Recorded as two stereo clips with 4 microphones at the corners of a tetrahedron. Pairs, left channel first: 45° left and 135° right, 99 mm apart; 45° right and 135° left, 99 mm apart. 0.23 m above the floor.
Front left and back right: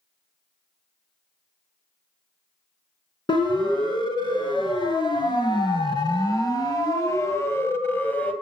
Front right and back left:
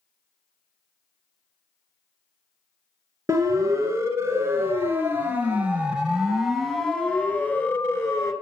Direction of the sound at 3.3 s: 80° left.